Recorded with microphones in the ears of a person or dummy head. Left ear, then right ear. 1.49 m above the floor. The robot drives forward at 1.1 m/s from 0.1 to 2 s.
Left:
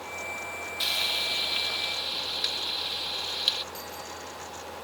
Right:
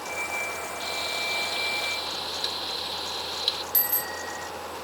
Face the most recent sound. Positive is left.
turn(degrees=-55)  # may be behind; listen again after turning